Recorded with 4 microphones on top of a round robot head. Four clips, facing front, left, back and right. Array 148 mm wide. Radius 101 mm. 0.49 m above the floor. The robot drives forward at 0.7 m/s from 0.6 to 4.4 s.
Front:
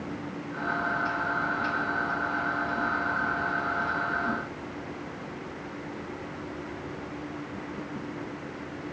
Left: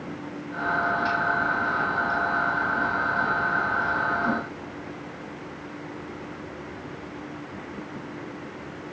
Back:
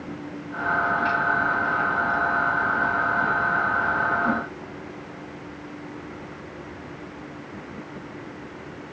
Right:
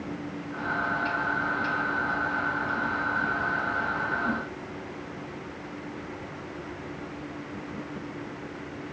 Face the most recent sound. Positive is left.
No sound to turn to.